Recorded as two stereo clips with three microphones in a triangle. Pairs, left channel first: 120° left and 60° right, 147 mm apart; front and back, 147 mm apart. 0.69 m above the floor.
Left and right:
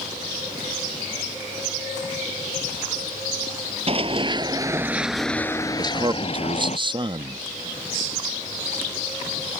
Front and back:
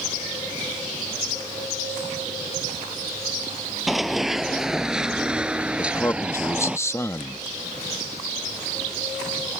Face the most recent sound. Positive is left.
turn(degrees=-55)